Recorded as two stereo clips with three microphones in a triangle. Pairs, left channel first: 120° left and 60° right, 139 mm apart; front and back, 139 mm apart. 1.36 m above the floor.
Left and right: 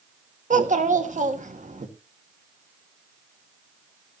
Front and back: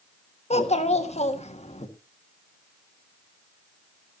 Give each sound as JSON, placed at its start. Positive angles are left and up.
{"t": 0.5, "sound": "a child speaking", "azimuth_deg": -35, "distance_m": 1.6}